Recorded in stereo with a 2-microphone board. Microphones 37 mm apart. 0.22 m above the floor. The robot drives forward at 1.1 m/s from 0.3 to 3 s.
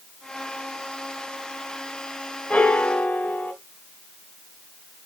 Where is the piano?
35° left (ahead or behind), 1.0 m; by 3.5 s 40° left (ahead or behind), 0.8 m.